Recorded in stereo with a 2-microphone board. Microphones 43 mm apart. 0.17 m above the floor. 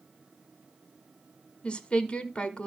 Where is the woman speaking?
25° left (ahead or behind), 1.1 m.